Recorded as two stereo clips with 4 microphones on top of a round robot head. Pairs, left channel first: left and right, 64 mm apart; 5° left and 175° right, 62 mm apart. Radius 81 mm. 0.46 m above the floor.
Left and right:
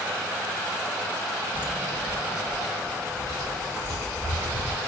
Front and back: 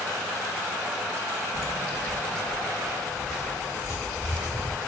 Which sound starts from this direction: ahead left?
Footsteps, at 1.5 s.